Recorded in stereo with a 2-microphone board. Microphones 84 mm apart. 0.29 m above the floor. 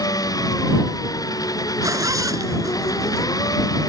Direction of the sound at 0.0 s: 50° left (ahead or behind).